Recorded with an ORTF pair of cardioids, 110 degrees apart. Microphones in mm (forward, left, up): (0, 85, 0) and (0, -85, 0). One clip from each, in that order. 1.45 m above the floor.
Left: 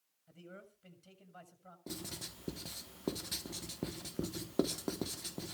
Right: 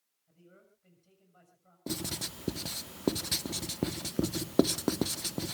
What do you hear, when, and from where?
0.3 s a man speaking: 50° left, 6.5 m
1.9 s writing: 45° right, 0.9 m